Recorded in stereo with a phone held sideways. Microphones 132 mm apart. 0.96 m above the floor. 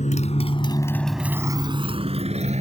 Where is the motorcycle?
65° left (ahead or behind); by 2.6 s 55° right (ahead or behind).